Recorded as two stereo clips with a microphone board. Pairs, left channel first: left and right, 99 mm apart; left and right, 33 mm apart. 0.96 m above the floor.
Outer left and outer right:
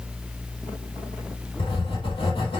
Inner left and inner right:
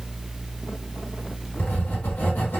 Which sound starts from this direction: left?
Writing, at 1.6 s.